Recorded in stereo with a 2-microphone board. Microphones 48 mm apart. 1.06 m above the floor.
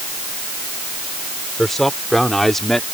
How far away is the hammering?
No hammering in this recording.